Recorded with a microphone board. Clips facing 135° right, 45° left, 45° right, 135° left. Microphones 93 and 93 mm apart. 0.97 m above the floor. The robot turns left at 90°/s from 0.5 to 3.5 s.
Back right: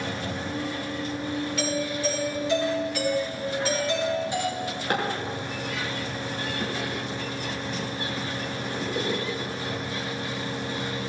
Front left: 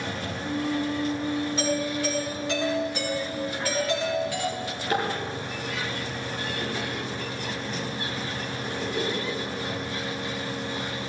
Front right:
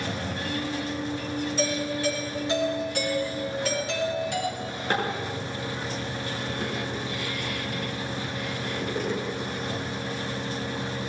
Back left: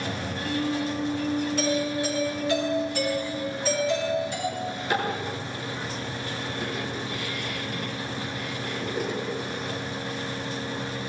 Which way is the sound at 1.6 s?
105° left.